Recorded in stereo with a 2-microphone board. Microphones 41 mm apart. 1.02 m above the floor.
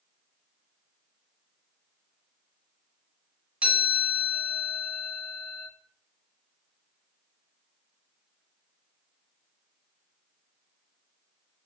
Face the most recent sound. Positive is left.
turn(degrees=-35)  # may be behind; listen again after turning